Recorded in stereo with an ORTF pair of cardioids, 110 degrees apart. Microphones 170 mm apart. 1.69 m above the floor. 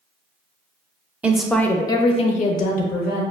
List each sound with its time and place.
1.2 s a woman speaking: 10° right, 0.7 m; by 3.2 s 70° left, 0.9 m